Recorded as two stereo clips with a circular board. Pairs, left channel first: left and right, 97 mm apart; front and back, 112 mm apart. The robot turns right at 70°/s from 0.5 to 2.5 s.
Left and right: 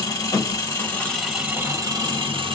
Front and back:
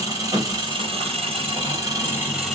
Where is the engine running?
135° left, 1.4 m; by 2.5 s 85° right, 1.4 m.